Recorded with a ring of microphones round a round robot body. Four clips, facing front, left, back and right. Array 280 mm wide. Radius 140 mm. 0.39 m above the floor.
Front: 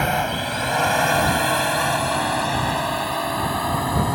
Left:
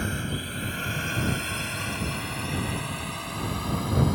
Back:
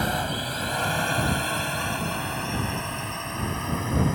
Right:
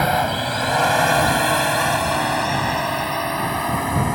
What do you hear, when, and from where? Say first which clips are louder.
0.0 s a drone: right 13 dB, front 5 dB; 70° right; by 4.2 s 45° right